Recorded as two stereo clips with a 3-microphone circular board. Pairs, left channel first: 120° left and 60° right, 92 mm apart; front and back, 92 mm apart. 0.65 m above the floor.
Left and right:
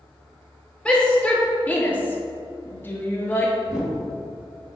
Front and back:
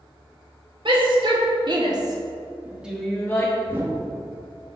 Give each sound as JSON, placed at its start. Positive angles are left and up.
{"t": 0.8, "sound": "a shout", "azimuth_deg": -165, "distance_m": 2.5}
{"t": 3.7, "sound": "a whoosh", "azimuth_deg": -135, "distance_m": 1.3}